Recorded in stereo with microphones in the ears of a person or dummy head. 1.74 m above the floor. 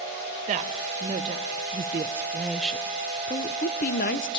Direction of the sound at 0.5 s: 40° right (ahead or behind).